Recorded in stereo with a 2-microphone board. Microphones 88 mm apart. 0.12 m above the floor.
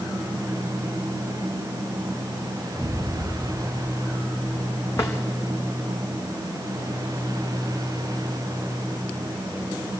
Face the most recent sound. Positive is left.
turn(degrees=30)  # may be behind; listen again after turning